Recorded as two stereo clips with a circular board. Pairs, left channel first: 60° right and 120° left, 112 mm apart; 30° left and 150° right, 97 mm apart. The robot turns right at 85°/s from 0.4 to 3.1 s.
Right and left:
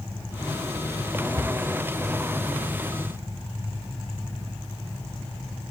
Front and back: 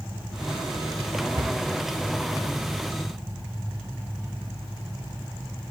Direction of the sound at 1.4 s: 175° left.